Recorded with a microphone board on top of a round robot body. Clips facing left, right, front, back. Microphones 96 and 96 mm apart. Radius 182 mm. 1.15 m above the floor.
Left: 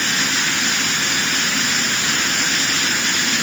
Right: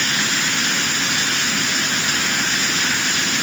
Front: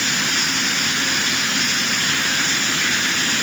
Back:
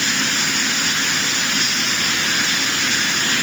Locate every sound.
Only background noise.